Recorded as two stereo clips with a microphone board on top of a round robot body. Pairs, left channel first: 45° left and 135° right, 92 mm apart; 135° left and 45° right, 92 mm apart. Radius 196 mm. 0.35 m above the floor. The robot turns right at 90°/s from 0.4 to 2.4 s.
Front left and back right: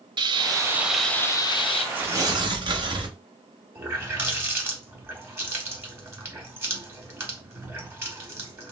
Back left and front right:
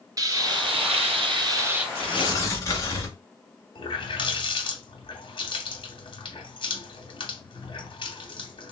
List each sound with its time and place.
0.2 s frying: 100° right, 0.5 m; by 1.9 s 35° left, 0.5 m
1.9 s tearing paper: 150° left, 0.8 m; by 3.2 s 170° right, 0.8 m
3.8 s a running tap: 160° left, 1.1 m